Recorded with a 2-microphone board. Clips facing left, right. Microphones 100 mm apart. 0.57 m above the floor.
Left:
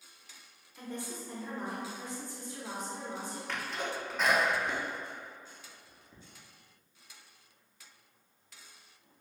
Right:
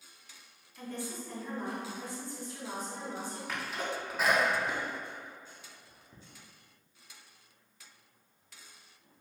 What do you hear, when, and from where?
0.8 s a woman speaking: 20° left (ahead or behind), 0.8 m
3.5 s a sneeze: 5° right (ahead or behind), 0.6 m